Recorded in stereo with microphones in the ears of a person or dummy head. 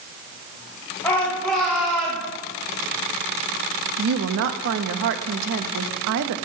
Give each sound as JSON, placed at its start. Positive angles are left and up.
{"t": 1.0, "sound": "a shout", "side_deg": 10, "distance_m": 2.0}
{"t": 4.0, "sound": "a woman speaking", "side_deg": -65, "distance_m": 0.9}